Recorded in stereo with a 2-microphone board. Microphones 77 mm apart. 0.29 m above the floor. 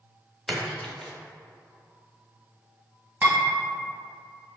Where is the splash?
10° left (ahead or behind), 0.6 m.